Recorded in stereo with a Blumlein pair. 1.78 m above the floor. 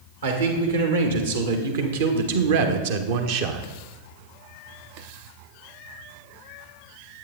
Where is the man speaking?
70° right, 2.5 m; by 3.7 s 35° right, 0.8 m.